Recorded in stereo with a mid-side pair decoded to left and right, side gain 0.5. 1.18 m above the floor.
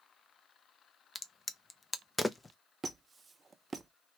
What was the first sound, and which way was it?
A crack, 25° left.